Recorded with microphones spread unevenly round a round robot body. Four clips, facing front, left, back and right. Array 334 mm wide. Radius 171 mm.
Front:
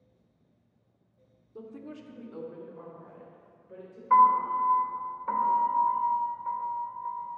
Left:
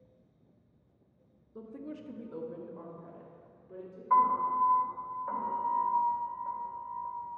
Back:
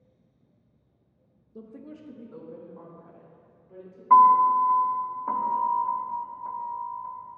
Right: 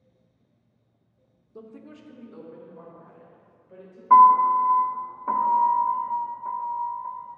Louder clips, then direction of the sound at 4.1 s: Right 12 dB, back 5 dB; 130° right.